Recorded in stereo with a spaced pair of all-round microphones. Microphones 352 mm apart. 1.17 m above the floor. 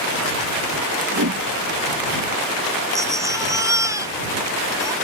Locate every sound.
1.1 s a whoosh: 55° right (ahead or behind)
2.9 s a baby crying: 10° right (ahead or behind)